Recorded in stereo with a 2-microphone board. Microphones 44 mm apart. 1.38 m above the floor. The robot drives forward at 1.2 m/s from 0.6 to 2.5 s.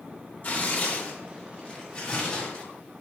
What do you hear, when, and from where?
0.4 s tearing paper: 40° left (ahead or behind), 3 m; by 2.6 s 25° left (ahead or behind), 4.5 m